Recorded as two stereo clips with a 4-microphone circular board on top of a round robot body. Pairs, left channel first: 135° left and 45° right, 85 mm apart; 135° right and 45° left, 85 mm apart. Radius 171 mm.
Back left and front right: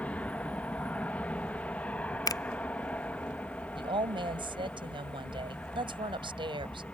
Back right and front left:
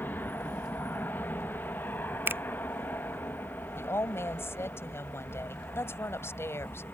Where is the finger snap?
105° left.